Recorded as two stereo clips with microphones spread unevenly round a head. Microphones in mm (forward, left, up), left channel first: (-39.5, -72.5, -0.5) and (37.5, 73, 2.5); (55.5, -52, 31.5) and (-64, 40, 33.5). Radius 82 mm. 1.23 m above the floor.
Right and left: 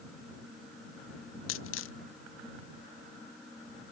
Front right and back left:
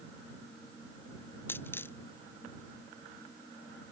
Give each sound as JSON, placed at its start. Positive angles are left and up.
{"t": 1.5, "sound": "a dropped coin", "azimuth_deg": -115}